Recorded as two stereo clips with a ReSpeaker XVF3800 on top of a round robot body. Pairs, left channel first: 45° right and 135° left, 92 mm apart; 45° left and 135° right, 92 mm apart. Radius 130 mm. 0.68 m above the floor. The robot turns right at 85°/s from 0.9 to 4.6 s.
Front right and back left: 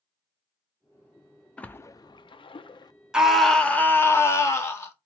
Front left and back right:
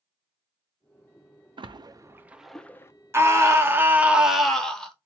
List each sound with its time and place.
1.6 s a splash: 125° right, 0.5 m; by 2.9 s 10° right, 0.5 m
3.1 s a scream: 155° right, 1.2 m; by 4.9 s 30° right, 1.2 m